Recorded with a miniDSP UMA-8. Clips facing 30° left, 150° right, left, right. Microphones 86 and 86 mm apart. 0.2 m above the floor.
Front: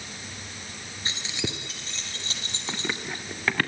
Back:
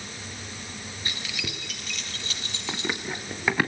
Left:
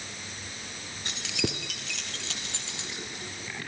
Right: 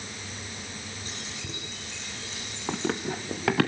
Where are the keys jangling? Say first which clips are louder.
Front 3 dB, left 6 dB; 95° left, 2.5 m; by 3.2 s 85° left, 5.5 m.